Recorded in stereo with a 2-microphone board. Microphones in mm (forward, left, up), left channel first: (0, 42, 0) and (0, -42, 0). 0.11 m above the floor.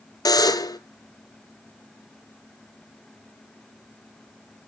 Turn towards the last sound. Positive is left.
turn(degrees=50)  # may be behind; listen again after turning